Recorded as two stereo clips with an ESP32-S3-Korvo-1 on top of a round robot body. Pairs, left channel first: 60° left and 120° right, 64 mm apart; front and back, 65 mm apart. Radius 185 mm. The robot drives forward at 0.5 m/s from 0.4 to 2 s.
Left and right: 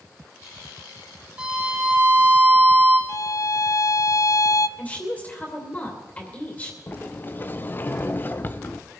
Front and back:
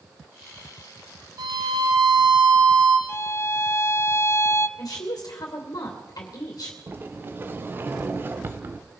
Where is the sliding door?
120° left, 0.5 m.